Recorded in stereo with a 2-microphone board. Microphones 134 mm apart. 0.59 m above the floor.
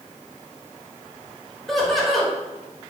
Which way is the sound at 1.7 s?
Centre (ahead or behind).